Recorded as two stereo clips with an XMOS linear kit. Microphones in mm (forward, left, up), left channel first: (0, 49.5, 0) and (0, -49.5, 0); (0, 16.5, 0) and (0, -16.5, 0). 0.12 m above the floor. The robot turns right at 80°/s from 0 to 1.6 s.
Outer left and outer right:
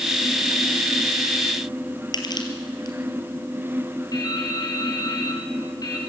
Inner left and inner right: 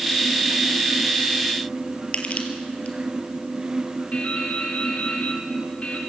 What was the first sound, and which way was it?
Crushing, 45° left (ahead or behind).